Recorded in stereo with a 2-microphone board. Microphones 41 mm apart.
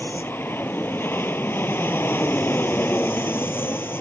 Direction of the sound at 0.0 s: 65° left (ahead or behind).